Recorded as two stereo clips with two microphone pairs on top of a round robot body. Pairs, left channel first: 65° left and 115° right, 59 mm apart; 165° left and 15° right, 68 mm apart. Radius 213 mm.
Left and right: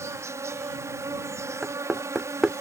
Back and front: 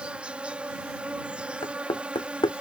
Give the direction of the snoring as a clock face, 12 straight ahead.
I don't hear snoring.